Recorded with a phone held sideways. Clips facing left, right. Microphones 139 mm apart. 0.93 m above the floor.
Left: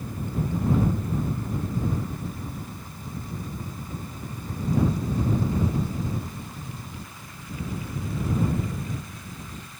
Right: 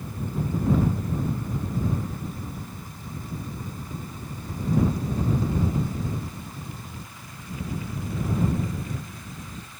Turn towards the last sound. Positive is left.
No sound to turn to.